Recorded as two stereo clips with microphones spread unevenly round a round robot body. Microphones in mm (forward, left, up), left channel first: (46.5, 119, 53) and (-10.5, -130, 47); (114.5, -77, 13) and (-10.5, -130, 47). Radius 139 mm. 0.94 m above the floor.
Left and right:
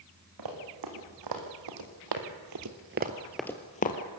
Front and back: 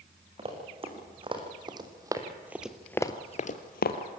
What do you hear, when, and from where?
0.4 s running footsteps: 115° right, 4.5 m; by 4.0 s 25° left, 1.6 m